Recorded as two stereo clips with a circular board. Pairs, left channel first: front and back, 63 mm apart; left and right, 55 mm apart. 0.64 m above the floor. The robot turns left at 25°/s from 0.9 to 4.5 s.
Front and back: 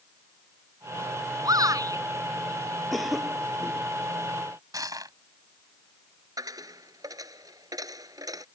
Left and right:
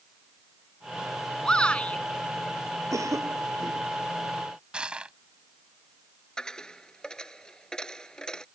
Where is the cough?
90° right; by 3.9 s 115° right.